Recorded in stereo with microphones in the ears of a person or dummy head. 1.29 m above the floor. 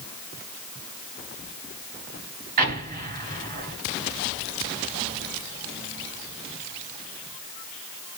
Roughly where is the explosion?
Right.